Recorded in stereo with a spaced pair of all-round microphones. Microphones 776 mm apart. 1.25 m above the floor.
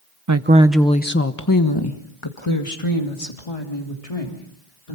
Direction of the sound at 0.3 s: 25° right (ahead or behind).